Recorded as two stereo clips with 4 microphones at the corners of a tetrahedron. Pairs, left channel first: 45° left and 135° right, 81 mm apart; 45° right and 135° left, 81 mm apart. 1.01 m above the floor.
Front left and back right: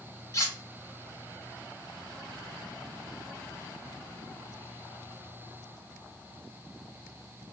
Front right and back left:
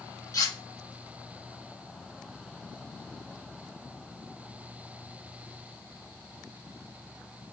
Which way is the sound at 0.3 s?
Straight ahead.